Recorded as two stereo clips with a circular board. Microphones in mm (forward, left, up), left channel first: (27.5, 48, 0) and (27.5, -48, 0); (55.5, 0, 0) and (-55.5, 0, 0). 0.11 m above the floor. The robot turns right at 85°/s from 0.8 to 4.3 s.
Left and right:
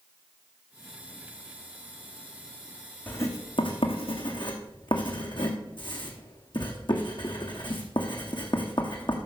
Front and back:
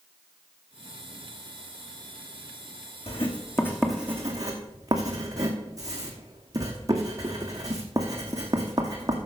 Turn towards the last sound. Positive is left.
turn(degrees=125)